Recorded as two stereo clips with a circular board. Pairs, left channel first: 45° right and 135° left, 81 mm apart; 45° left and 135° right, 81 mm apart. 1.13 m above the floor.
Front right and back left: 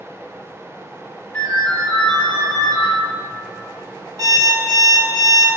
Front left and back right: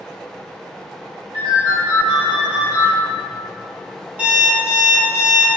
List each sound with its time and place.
1.3 s a ringtone: 115° right, 1.1 m
4.2 s an alarm clock: 160° left, 1.2 m